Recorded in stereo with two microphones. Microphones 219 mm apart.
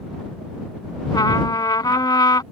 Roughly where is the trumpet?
Centre.